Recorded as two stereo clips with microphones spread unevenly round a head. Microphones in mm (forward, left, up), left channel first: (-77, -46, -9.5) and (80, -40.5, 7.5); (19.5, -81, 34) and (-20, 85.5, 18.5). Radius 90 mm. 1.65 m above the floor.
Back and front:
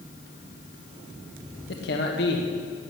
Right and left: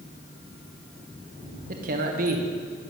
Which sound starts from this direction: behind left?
A man speaking, at 1.7 s.